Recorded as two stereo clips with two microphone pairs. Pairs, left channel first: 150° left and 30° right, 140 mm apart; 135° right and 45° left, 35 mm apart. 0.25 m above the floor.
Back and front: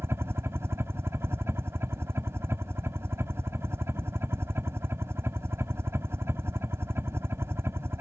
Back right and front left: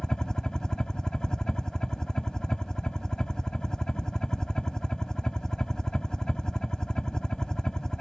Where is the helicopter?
85° right.